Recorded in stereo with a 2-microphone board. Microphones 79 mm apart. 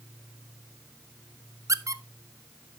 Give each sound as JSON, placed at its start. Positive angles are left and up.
{"t": 1.7, "sound": "a squeak", "side_deg": -45, "distance_m": 0.7}